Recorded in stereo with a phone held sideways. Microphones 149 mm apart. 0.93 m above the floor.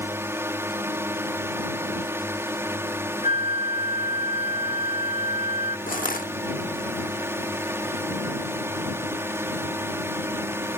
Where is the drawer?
I don't hear a drawer.